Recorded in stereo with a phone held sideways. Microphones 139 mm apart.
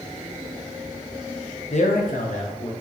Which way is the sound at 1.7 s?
50° left (ahead or behind).